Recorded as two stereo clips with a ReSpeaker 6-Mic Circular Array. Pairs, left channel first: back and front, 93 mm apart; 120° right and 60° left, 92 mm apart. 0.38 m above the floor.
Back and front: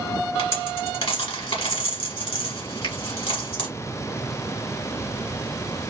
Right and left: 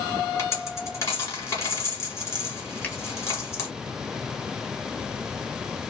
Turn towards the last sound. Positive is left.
turn(degrees=170)